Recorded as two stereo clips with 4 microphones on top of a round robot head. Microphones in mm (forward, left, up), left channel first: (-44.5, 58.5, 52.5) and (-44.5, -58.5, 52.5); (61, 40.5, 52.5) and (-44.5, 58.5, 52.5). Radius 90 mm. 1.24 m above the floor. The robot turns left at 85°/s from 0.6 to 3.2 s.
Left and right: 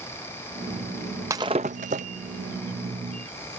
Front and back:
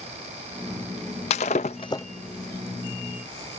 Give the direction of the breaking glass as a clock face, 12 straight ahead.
1 o'clock.